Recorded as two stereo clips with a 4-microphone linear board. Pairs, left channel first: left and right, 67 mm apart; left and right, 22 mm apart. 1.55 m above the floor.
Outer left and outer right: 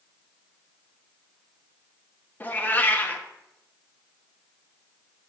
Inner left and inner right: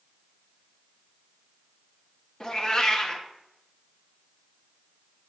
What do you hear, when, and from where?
2.4 s a cat meowing: 30° left (ahead or behind), 1.0 m